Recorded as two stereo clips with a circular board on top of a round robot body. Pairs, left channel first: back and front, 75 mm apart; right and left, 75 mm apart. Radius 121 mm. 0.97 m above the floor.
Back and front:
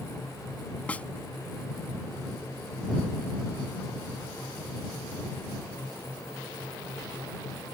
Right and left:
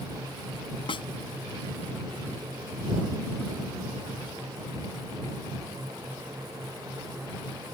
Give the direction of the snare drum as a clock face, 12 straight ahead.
4 o'clock.